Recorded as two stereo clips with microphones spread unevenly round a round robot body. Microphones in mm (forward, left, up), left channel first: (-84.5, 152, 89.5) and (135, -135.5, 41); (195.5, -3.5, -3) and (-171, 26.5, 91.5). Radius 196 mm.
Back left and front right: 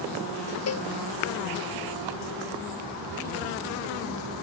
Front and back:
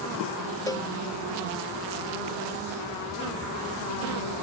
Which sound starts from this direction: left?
A cowbell, at 0.7 s.